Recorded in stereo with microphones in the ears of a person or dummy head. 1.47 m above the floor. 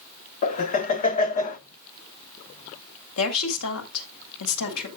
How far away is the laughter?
About 1.1 m.